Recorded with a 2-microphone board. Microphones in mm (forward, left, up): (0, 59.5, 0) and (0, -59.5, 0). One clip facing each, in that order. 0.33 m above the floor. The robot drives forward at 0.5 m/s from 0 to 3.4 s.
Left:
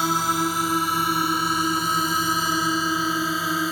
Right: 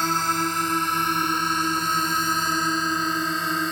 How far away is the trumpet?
I don't hear a trumpet.